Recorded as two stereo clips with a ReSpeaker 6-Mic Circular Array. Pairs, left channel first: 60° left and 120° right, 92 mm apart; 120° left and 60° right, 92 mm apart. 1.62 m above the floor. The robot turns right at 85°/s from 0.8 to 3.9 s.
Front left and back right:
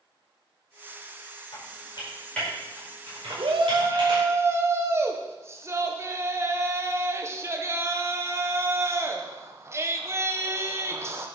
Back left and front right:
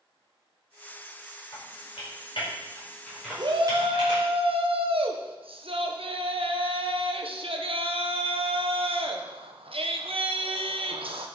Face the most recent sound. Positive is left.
turn(degrees=-60)